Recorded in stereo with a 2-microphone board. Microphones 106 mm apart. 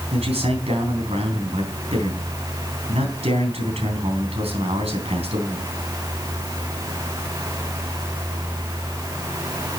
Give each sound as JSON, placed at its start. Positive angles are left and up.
{"t": 0.1, "sound": "a man speaking", "side_deg": -70, "distance_m": 3.5}